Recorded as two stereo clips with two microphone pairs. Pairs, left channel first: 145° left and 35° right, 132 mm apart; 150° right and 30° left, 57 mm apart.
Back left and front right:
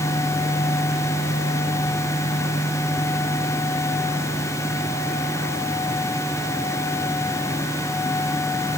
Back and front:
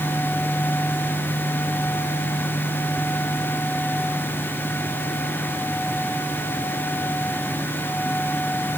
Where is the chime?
I don't hear a chime.